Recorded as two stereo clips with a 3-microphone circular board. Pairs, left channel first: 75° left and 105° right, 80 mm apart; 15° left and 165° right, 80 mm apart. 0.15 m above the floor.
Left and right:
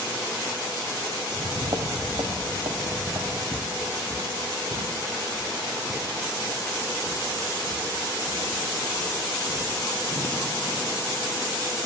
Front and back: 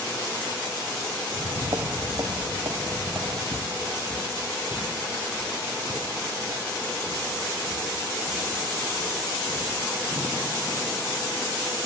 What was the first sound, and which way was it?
Footsteps, 150° right.